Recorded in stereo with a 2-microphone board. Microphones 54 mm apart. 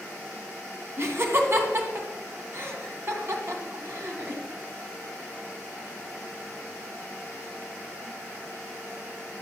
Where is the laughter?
45° right (ahead or behind), 2 m.